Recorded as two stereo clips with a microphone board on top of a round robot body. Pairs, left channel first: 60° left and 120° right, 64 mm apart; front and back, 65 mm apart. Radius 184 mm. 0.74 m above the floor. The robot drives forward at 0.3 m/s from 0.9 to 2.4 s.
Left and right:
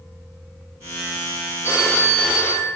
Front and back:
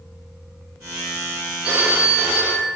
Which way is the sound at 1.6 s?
110° left.